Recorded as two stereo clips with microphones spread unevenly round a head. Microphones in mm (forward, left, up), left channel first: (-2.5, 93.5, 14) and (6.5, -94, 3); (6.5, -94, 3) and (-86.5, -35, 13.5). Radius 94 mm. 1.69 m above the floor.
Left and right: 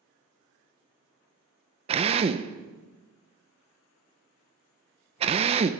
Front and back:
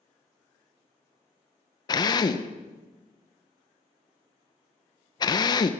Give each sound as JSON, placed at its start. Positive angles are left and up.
{"t": 1.9, "sound": "a drill", "azimuth_deg": -50, "distance_m": 0.8}